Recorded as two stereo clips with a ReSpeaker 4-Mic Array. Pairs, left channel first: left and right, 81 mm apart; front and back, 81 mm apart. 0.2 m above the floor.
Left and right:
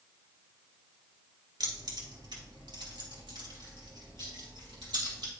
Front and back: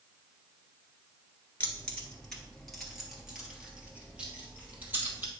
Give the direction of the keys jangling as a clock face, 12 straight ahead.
2 o'clock.